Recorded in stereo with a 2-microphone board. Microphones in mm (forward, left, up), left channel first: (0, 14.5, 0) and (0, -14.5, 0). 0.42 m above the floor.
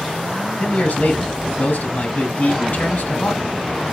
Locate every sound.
0.6 s a man speaking: 75° left (ahead or behind), 3 m